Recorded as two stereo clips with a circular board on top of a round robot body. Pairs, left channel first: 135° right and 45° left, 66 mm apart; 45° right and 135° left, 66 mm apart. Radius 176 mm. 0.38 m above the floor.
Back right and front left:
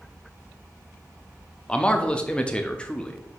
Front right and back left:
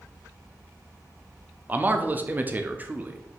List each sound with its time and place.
1.7 s a man speaking: 165° left, 1.0 m